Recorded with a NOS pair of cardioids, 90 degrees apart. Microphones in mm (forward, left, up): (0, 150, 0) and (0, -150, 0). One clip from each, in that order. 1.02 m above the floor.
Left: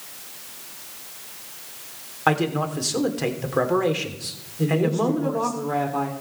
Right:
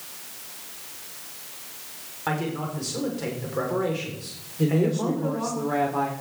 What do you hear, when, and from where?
2.3 s a man speaking: 55° left, 3 m
4.6 s a woman speaking: 5° right, 2.5 m